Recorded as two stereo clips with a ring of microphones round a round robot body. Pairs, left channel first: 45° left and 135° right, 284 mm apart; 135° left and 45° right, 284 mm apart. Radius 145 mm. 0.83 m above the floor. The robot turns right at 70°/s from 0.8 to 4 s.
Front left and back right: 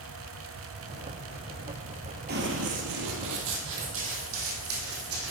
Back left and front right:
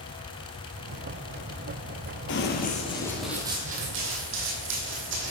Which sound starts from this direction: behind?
Running footsteps, at 2.3 s.